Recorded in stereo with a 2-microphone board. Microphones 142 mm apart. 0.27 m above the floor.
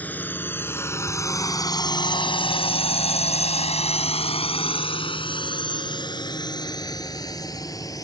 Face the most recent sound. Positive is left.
turn(degrees=25)  # may be behind; listen again after turning